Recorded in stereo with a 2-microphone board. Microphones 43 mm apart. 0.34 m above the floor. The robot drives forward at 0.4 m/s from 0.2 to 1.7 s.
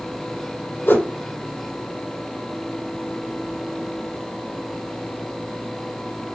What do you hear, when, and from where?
0.9 s a whoosh: 60° left (ahead or behind), 4 m; by 1.1 s 55° left (ahead or behind), 4 m